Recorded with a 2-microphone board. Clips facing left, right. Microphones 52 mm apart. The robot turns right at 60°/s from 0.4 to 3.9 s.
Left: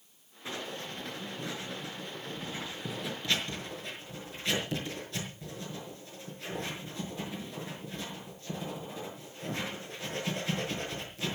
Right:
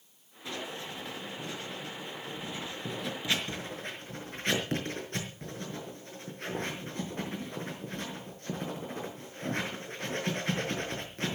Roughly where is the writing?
Left.